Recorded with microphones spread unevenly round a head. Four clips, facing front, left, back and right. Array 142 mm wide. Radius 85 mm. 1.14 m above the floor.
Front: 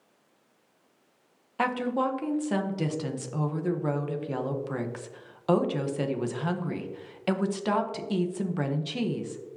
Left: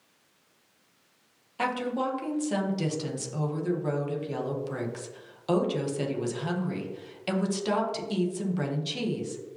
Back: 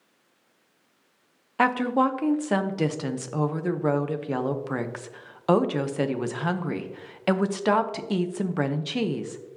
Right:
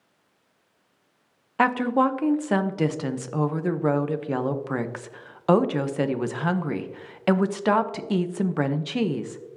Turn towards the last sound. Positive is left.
turn(degrees=-145)